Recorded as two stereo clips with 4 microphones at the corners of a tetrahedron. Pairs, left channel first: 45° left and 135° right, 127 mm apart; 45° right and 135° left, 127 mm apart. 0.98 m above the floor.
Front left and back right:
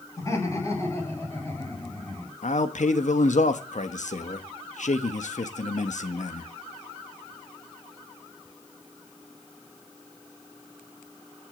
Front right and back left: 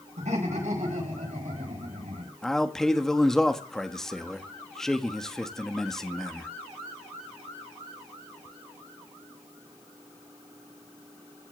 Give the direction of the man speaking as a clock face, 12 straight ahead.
11 o'clock.